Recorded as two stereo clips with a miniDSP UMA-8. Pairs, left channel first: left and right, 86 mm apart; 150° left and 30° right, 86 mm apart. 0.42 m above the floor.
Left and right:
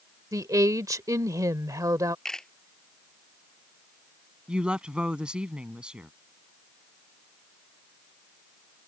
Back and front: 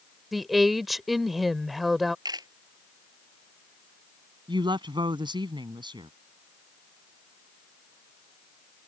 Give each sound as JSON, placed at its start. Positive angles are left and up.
{"t": 0.3, "sound": "a woman speaking", "azimuth_deg": -120}
{"t": 2.2, "sound": "a camera shutter", "azimuth_deg": 5}
{"t": 4.5, "sound": "a woman speaking", "azimuth_deg": -10}